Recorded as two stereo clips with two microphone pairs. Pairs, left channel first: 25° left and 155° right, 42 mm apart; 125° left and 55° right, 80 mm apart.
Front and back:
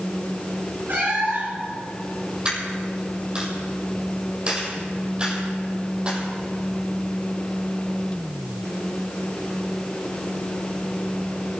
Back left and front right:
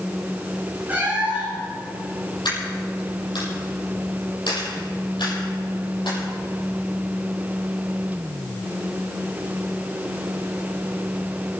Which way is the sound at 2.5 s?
140° left.